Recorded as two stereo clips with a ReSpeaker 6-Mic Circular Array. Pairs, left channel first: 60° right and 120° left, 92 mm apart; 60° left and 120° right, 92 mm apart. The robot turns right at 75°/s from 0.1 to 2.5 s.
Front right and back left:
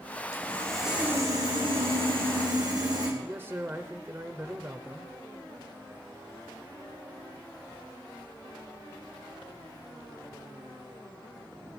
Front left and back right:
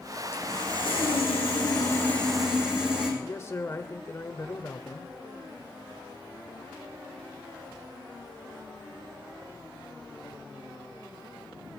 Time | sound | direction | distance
0.3 | sawing | 5° right | 7 m
3.2 | a man speaking | 80° left | 1.1 m